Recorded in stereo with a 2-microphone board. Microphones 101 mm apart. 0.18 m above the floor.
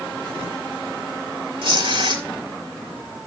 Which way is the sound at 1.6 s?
65° right (ahead or behind).